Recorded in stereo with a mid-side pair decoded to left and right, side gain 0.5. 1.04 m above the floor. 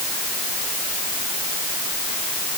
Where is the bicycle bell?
I don't hear a bicycle bell.